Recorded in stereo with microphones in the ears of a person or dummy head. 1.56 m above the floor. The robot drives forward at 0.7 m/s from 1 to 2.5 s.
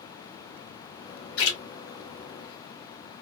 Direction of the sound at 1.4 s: 70° left (ahead or behind).